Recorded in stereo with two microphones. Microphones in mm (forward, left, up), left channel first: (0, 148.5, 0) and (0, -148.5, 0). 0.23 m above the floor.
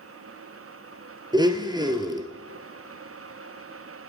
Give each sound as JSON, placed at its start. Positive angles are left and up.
{"t": 1.3, "sound": "a blender", "side_deg": -15, "distance_m": 1.3}